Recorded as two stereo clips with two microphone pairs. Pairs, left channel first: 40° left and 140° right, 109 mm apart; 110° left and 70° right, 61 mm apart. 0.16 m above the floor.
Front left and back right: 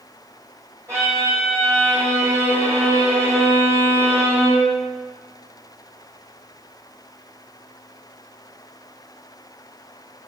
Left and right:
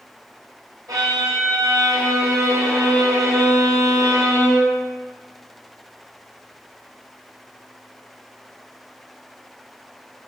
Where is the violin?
70° right, 1.5 m.